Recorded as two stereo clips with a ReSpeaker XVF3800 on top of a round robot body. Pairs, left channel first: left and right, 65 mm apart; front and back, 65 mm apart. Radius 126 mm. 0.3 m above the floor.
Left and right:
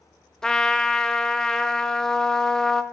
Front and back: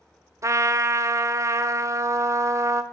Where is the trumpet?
170° left, 1.0 m.